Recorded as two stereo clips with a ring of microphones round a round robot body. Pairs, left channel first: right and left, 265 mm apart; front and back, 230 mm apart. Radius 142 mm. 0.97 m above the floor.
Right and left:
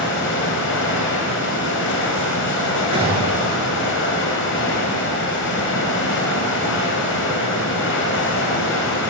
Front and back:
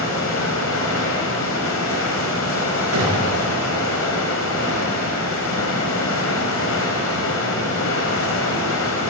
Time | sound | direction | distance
0.0 | running water | 45° right | 5 m
2.9 | a gunshot | 160° left | 8.5 m